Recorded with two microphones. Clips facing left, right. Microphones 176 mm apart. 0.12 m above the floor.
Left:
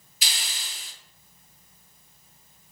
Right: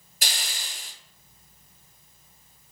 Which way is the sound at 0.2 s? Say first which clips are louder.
Right 3 dB; 55° right (ahead or behind).